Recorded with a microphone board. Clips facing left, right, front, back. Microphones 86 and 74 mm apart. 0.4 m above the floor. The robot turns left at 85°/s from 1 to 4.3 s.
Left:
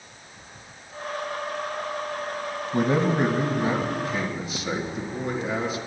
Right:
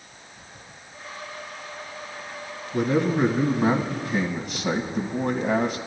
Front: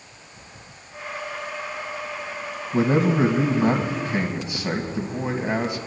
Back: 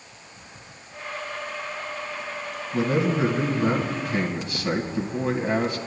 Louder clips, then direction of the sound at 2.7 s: Even, front 3 dB; 60° left.